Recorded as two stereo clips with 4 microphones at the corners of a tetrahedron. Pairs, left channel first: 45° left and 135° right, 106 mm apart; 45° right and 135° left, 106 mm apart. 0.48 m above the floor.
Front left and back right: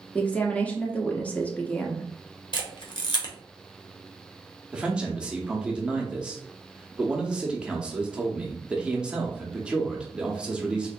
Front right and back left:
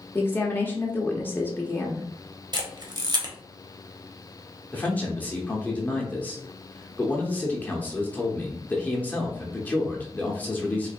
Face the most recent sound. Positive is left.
turn(degrees=-75)